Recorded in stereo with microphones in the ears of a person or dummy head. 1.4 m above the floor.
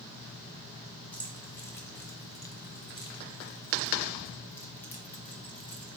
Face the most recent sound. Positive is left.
turn(degrees=5)  # may be behind; listen again after turning